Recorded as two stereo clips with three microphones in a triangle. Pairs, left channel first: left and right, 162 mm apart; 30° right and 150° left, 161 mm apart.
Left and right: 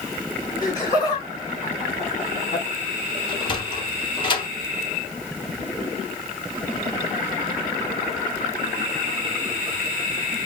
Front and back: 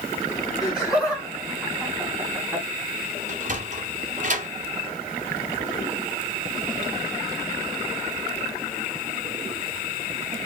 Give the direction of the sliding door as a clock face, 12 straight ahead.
7 o'clock.